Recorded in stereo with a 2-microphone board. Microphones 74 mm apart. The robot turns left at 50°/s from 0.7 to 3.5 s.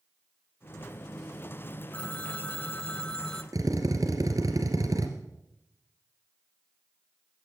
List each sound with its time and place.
1.9 s a phone ringing: 20° left (ahead or behind), 0.6 m; by 3.4 s 5° left (ahead or behind), 0.6 m
3.5 s a drill: 55° right (ahead or behind), 2.0 m